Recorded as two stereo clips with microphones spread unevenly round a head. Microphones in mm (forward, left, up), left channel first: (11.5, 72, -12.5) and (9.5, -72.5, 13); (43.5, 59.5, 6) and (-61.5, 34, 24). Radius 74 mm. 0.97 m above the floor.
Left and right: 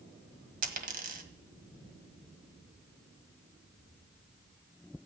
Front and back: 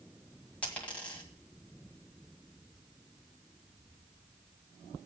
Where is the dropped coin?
70° right, 1.7 m.